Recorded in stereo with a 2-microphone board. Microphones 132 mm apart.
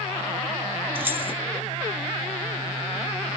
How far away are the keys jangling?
About 1.1 m.